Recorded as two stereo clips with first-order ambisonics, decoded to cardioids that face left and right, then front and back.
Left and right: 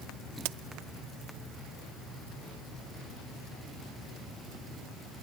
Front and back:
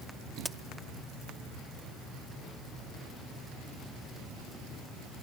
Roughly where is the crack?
Right.